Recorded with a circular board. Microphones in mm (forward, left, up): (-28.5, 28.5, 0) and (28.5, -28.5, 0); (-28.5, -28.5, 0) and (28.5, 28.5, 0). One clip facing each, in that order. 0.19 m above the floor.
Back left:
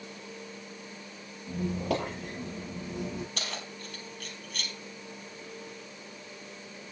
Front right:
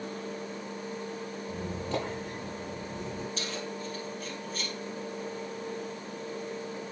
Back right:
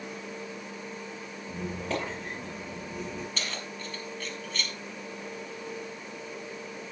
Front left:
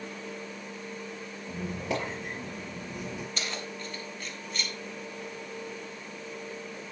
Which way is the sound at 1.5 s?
130° left.